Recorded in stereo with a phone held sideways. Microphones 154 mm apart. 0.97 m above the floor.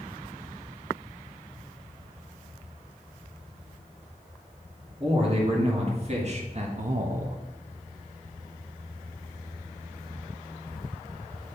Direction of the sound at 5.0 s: 40° right (ahead or behind).